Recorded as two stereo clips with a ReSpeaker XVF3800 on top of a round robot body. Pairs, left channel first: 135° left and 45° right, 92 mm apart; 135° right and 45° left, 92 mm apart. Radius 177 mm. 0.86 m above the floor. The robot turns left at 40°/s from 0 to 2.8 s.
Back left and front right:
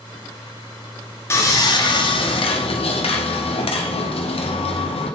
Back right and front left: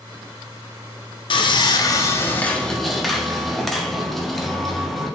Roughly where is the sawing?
Behind.